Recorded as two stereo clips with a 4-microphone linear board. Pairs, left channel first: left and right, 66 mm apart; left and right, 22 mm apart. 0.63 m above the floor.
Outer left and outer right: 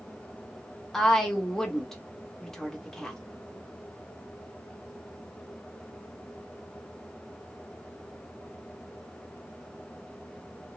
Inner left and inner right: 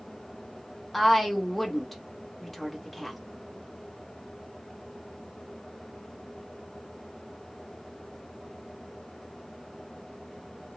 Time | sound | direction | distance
0.9 | a woman speaking | 5° left (ahead or behind) | 1.3 m